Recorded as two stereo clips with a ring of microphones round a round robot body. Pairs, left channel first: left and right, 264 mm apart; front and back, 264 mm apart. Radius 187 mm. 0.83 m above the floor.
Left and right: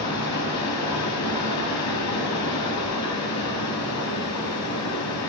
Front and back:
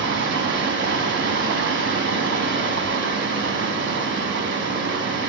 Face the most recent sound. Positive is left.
turn(degrees=135)